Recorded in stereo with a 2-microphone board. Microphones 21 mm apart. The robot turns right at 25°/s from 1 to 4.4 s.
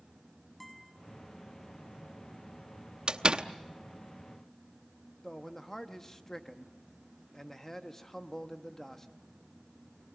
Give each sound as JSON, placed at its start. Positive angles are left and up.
{"t": 0.6, "sound": "a guitar", "side_deg": 5, "distance_m": 5.5}
{"t": 3.1, "sound": "a door slam", "side_deg": -40, "distance_m": 0.8}
{"t": 5.2, "sound": "a man speaking", "side_deg": 20, "distance_m": 1.1}